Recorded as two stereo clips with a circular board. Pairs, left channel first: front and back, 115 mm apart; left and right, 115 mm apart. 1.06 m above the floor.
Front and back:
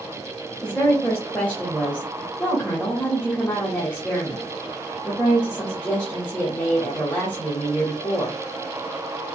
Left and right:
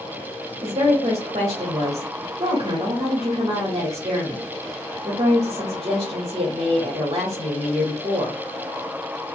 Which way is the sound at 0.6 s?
75° right.